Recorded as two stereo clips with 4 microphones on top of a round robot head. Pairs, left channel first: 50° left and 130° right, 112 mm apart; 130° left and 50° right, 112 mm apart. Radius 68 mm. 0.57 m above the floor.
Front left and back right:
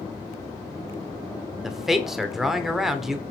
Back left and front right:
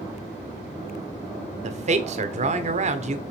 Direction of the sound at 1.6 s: 45° right.